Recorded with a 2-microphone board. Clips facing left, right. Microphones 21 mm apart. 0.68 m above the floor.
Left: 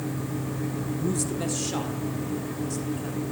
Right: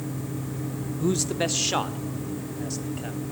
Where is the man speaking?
50° right (ahead or behind), 0.9 m; by 3.2 s 30° right (ahead or behind), 3.5 m.